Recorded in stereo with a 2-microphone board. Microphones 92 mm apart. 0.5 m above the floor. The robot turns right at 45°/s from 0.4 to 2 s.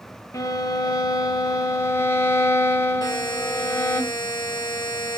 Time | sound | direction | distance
0.3 | a violin | 65° left | 1.1 m
3.0 | a buzzer | 50° left (ahead or behind) | 2.5 m